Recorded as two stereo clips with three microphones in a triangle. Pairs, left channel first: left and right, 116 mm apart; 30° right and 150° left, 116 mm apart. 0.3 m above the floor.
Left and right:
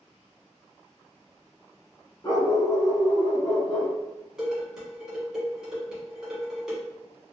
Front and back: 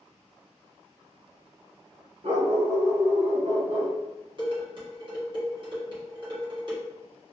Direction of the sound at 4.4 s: 175° right.